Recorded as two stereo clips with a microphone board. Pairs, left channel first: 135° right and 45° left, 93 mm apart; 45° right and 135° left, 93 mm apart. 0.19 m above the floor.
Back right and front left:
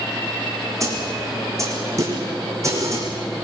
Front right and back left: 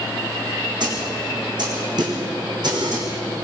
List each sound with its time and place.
0.8 s a snare drum: 100° left, 6 m